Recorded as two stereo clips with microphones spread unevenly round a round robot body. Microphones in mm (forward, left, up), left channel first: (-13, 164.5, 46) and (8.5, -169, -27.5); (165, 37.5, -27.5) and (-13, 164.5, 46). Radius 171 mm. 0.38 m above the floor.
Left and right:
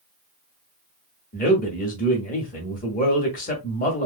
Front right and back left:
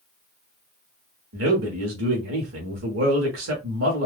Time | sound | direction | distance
1.3 | a man speaking | 165° left | 1.0 m